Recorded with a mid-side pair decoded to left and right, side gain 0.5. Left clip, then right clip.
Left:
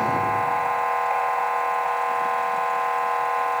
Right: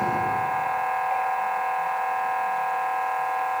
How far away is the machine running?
About 2 m.